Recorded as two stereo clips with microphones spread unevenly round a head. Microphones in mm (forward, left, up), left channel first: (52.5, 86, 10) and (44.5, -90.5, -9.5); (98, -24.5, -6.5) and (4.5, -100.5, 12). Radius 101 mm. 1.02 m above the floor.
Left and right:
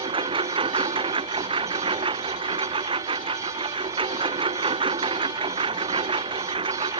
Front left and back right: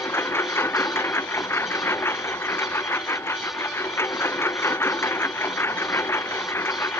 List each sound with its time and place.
0.0 s a lawn mower: 30° right